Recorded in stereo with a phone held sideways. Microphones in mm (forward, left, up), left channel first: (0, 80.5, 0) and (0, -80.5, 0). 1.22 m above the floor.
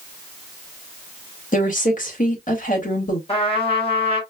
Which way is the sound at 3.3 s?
35° left (ahead or behind).